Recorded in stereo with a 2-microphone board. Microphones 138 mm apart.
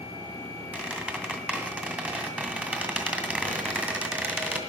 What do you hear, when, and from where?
0.7 s a squeak: 10° right (ahead or behind), 2 m